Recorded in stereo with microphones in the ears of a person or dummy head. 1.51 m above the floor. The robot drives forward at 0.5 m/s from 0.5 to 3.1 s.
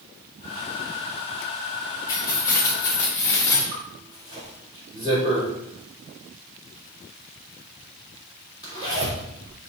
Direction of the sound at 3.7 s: 30° right (ahead or behind).